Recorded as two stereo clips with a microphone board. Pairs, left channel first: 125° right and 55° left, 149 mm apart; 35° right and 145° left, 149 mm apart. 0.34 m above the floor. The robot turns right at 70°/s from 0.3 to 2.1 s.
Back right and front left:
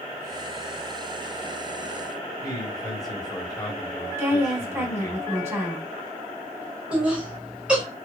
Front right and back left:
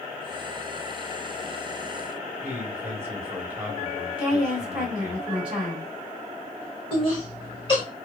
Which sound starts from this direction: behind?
A man speaking, at 2.4 s.